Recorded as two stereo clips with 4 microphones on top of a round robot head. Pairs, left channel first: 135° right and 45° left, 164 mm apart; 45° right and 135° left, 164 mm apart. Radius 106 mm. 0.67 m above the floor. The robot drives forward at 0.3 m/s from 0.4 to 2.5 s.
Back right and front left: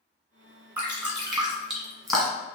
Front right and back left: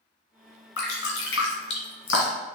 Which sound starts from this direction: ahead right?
Dripping, at 0.8 s.